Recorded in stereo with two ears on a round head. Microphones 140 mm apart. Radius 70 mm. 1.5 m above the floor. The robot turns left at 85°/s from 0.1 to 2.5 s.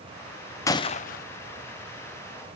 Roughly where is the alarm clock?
No alarm clock in this recording.